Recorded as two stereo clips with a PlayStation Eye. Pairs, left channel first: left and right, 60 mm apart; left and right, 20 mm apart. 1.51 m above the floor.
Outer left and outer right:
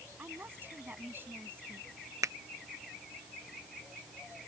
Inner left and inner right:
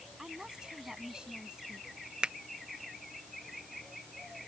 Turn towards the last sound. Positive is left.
turn(degrees=-60)  # may be behind; listen again after turning